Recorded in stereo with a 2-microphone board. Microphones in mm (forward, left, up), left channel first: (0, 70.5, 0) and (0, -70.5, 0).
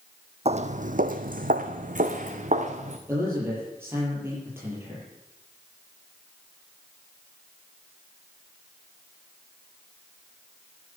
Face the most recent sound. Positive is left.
turn(degrees=-15)  # may be behind; listen again after turning